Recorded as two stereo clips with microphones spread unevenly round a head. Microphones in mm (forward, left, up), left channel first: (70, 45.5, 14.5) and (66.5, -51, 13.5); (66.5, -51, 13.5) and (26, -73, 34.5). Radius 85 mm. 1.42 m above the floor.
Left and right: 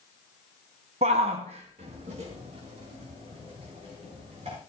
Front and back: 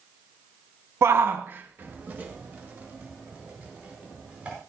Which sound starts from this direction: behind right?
A shout, at 1.0 s.